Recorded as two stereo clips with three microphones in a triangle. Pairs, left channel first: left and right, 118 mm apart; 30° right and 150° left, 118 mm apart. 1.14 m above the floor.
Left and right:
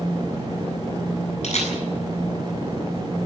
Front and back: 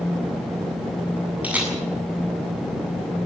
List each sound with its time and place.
1.4 s a camera shutter: 70° left, 7.5 m